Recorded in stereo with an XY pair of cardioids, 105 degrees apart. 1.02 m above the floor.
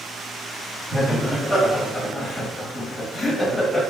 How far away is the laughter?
About 1.3 m.